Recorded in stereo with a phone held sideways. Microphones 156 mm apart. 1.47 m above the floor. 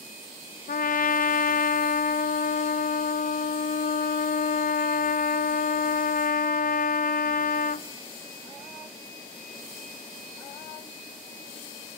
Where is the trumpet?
60° left (ahead or behind), 0.5 m.